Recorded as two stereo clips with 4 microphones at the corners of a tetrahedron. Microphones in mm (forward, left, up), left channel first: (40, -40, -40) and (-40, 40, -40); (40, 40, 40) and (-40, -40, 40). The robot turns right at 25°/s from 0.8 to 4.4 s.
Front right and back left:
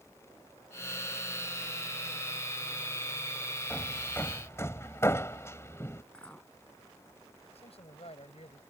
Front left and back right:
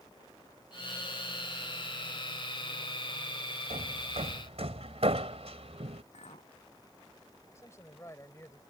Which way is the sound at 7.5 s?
20° right.